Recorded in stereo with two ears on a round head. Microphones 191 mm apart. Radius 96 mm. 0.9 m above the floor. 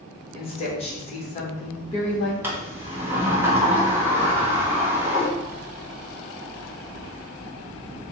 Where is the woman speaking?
30° left (ahead or behind), 1.1 m.